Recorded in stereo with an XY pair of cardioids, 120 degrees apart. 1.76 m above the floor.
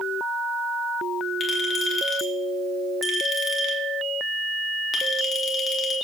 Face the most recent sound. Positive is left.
turn(degrees=35)